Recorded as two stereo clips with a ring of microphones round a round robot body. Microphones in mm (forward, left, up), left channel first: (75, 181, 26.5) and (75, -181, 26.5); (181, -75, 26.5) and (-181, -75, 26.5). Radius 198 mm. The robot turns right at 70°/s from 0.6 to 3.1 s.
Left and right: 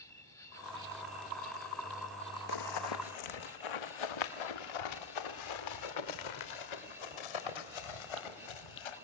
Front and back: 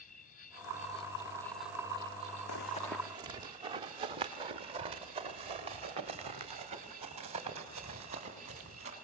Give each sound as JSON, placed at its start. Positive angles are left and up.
{"t": 0.0, "sound": "an insect", "azimuth_deg": 20, "distance_m": 2.0}
{"t": 2.5, "sound": "running footsteps", "azimuth_deg": 55, "distance_m": 1.1}